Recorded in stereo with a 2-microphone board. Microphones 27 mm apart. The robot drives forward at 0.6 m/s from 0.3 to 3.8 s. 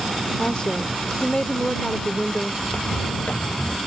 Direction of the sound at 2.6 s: 80° left.